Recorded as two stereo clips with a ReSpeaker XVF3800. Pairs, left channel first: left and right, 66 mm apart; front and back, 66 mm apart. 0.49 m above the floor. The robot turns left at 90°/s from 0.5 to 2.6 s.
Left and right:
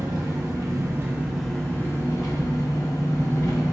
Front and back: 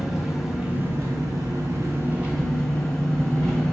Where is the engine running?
95° right, 0.9 m; by 3.8 s 75° left, 0.9 m.